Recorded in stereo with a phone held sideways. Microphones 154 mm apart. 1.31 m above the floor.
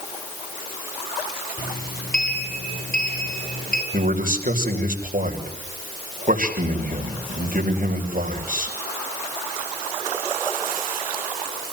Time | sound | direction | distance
1.6 | a sliding door | 75° left (ahead or behind) | 4.5 m
3.9 | a man speaking | 60° right (ahead or behind) | 6.5 m